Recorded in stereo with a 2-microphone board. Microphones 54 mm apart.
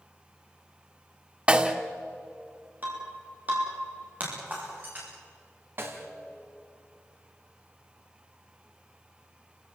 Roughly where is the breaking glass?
Right.